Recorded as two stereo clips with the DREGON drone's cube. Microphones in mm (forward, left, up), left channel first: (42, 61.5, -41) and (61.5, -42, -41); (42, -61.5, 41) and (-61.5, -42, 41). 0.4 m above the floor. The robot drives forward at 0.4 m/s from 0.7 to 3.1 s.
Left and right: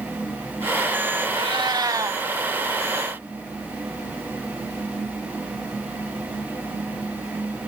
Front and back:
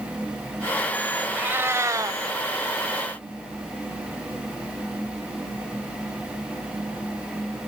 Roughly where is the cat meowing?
Behind right.